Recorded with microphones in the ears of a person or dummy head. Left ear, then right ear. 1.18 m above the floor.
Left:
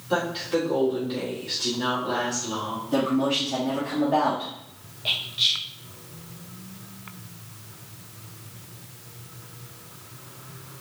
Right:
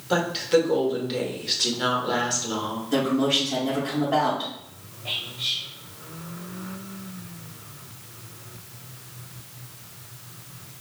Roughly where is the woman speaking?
Right.